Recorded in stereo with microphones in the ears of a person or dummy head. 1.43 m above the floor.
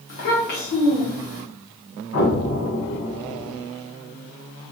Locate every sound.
0.1 s a child speaking: 45° left (ahead or behind), 1.1 m
2.1 s an explosion: 60° left (ahead or behind), 1.7 m